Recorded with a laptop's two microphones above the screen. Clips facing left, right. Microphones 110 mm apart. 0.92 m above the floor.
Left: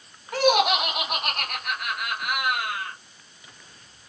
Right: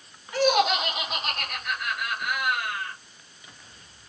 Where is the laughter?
65° left (ahead or behind), 1.4 m.